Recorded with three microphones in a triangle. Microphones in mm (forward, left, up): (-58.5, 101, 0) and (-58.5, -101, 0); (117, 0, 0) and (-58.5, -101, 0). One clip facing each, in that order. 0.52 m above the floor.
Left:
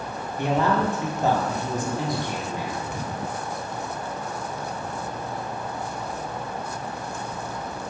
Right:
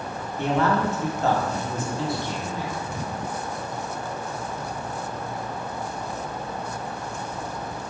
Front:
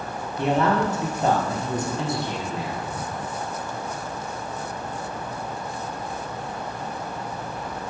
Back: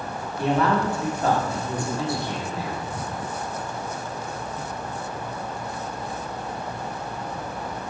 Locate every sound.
0.4 s a man speaking: 45° left, 0.7 m